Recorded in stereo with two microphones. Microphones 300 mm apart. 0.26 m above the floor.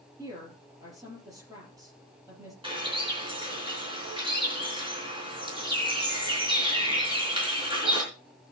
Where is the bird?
15° right (ahead or behind), 4 m.